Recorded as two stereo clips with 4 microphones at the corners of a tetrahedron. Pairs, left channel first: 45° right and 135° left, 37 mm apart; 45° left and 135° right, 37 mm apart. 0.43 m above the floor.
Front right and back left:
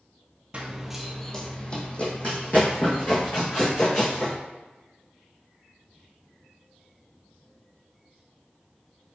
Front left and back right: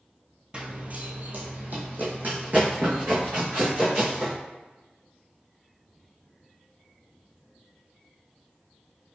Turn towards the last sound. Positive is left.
turn(degrees=-90)